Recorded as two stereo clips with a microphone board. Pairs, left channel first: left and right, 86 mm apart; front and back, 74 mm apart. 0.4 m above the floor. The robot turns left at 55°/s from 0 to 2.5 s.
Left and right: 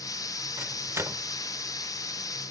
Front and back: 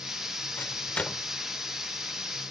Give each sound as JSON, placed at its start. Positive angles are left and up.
{"t": 0.6, "sound": "a microwave", "azimuth_deg": -40}